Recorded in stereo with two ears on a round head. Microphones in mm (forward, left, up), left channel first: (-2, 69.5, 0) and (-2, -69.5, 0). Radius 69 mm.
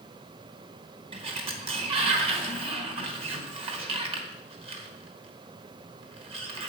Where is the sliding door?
40° right (ahead or behind), 1.3 m.